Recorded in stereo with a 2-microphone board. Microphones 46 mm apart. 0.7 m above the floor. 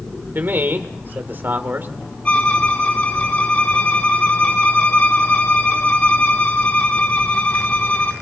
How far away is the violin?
About 1.6 m.